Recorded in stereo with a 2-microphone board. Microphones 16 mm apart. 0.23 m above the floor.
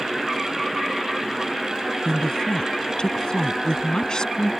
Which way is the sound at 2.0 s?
50° left (ahead or behind).